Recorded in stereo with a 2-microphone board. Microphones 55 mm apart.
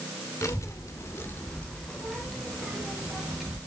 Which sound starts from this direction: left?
A child speaking, at 0.4 s.